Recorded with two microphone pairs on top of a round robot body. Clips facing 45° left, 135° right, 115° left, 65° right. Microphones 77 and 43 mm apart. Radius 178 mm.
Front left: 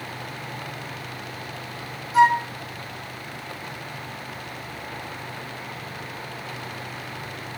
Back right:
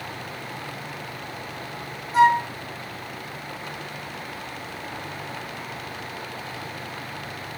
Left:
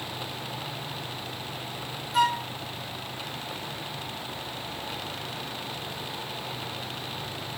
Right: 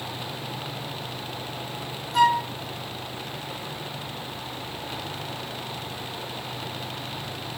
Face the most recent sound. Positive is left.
turn(degrees=-165)